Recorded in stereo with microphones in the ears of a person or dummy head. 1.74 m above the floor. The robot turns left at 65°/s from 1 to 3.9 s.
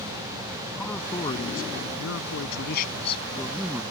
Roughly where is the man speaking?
Behind.